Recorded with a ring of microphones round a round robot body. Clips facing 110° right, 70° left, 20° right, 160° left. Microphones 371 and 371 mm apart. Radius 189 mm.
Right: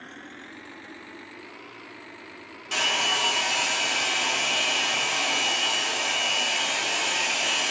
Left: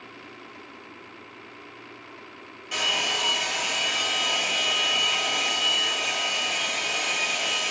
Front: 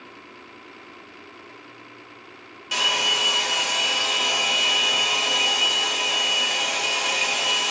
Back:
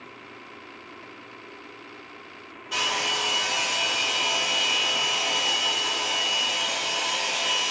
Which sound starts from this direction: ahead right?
A hair dryer, at 2.7 s.